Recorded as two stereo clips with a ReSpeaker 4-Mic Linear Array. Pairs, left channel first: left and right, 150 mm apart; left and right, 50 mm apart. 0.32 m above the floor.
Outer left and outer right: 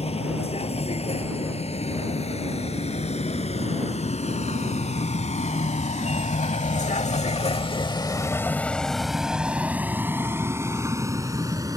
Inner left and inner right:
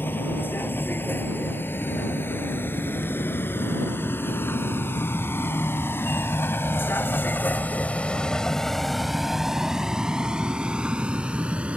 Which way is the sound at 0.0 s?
45° left (ahead or behind).